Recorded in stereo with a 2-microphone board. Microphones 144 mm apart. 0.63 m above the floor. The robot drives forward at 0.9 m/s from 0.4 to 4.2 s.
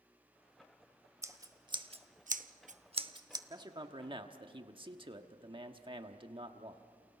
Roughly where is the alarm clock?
I don't hear an alarm clock.